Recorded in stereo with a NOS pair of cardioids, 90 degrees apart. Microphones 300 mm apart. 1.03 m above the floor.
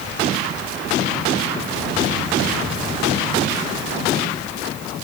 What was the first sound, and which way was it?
Only background noise.